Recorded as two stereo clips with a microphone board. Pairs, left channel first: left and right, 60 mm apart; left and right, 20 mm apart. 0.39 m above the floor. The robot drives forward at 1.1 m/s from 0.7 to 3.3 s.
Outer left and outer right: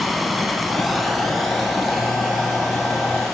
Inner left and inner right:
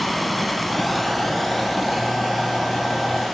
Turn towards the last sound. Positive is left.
turn(degrees=0)  # may be behind; listen again after turning